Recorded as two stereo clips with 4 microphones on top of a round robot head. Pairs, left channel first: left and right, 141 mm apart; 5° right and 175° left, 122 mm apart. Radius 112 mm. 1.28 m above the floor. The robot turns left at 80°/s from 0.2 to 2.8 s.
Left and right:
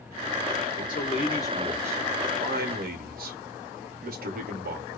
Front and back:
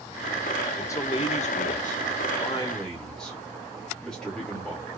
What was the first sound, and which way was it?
A man speaking, 75° left.